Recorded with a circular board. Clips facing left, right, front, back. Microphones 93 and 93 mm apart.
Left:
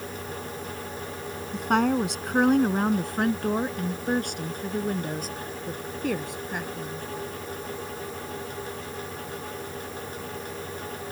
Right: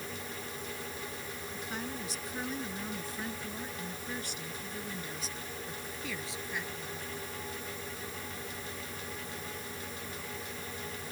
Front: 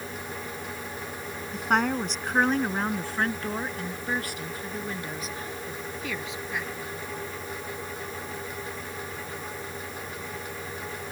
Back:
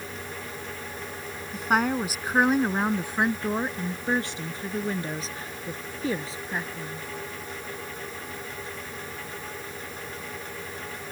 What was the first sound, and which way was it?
A woman speaking, 90° left.